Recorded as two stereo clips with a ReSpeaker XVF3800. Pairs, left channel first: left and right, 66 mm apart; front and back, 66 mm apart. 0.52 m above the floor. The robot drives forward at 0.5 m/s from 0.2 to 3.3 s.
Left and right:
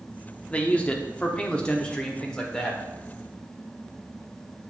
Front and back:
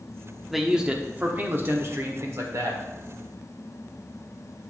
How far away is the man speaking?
About 0.8 m.